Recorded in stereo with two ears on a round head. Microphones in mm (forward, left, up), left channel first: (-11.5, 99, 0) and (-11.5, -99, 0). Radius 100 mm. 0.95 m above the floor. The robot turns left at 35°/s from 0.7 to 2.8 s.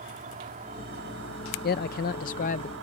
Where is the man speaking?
85° left; by 2.7 s 50° left.